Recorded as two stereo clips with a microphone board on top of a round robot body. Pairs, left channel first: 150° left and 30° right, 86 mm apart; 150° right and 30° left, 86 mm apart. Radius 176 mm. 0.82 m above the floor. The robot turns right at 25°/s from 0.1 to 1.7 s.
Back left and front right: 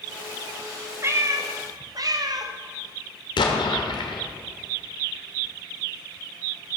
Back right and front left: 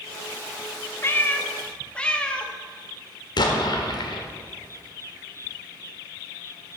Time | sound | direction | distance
1.0 | a cat meowing | 90° right | 0.8 m
3.4 | an explosion | 175° left | 1.2 m